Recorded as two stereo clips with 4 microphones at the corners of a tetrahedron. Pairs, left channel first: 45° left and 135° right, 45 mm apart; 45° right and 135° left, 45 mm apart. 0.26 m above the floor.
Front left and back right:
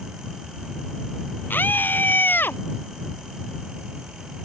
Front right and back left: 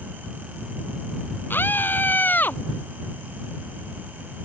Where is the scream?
5° right; by 2.6 s 5° left.